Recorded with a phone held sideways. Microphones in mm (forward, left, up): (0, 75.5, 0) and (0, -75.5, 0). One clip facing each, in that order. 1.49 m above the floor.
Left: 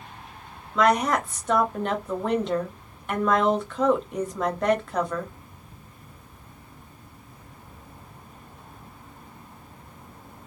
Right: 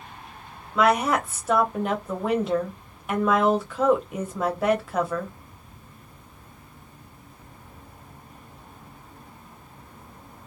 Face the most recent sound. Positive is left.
turn(degrees=-5)  # may be behind; listen again after turning